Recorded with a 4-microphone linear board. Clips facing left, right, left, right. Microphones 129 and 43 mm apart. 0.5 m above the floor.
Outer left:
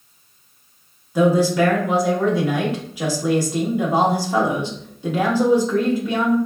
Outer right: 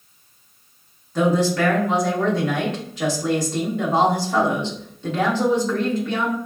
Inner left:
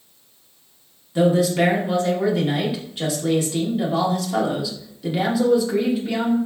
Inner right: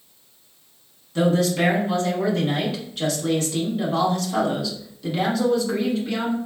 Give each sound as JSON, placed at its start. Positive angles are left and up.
{"t": 1.1, "sound": "a man speaking", "side_deg": 10, "distance_m": 1.0}